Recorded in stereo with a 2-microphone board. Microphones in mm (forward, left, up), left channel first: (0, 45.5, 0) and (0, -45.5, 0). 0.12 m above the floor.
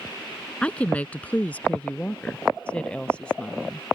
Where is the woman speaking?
15° left (ahead or behind); by 3.9 s 10° left (ahead or behind).